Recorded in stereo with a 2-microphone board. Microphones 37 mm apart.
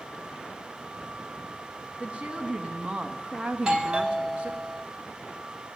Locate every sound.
2.0 s a woman speaking: 30° right (ahead or behind), 2.0 m; by 4.5 s 35° right (ahead or behind), 3 m
3.5 s a doorbell: 25° right (ahead or behind), 1.5 m